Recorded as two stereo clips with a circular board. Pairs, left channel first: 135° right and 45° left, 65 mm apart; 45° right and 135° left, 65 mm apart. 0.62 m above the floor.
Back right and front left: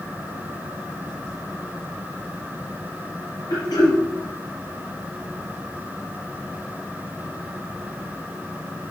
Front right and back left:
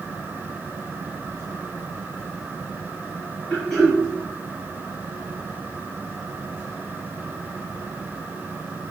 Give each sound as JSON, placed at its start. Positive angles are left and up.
{"t": 3.5, "sound": "throat clearing", "azimuth_deg": -130, "distance_m": 3.0}